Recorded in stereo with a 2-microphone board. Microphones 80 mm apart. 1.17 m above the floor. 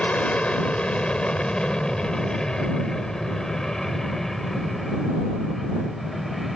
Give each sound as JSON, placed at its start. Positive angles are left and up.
{"t": 0.0, "sound": "an aircraft", "side_deg": 15}